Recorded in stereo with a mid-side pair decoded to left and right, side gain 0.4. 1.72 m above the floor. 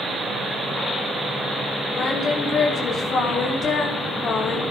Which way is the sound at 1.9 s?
55° left.